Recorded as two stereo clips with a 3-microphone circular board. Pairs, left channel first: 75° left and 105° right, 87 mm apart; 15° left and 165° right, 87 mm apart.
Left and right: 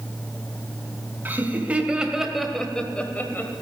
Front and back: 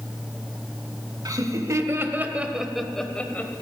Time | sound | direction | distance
1.2 | laughter | 160° right | 1.2 m